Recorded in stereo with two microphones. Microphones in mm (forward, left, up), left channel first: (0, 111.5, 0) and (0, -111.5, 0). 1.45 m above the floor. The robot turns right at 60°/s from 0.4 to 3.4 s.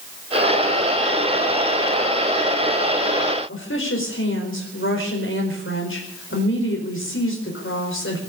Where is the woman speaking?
65° left (ahead or behind), 4.5 m.